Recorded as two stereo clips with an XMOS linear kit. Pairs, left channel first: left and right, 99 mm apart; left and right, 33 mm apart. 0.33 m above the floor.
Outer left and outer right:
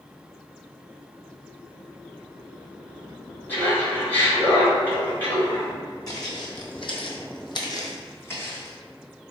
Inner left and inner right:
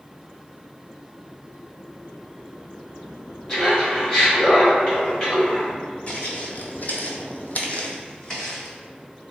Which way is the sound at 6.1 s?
40° left (ahead or behind).